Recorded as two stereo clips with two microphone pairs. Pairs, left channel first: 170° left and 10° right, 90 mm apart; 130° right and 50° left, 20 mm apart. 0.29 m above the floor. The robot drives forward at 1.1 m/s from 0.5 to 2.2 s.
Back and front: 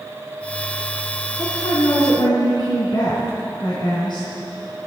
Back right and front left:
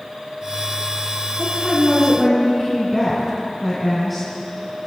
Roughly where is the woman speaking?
Behind left.